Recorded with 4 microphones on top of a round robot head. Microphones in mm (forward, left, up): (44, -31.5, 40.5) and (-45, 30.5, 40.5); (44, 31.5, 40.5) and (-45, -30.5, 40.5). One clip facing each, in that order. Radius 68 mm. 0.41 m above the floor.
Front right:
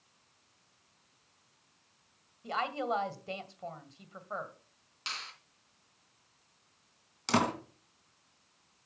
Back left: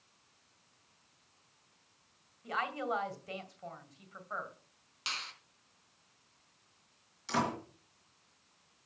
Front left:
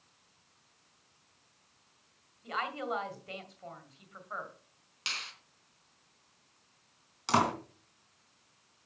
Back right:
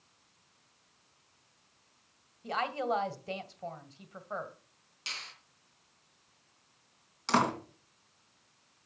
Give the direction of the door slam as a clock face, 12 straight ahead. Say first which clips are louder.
Front right 4 dB, even; 1 o'clock.